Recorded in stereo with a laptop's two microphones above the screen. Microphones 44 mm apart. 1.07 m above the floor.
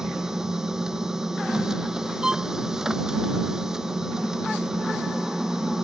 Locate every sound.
0.0 s a machine running: 10° right (ahead or behind)
2.2 s a violin: 15° right (ahead or behind)